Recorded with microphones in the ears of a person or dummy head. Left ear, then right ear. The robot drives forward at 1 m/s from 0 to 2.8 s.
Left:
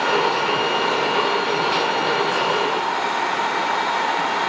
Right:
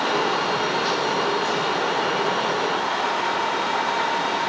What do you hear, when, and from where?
Only background noise.